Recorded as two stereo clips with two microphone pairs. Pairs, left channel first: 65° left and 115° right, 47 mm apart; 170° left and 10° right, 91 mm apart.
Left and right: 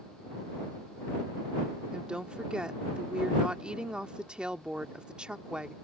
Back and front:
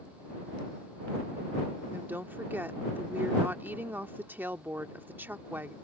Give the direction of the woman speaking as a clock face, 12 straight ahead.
2 o'clock.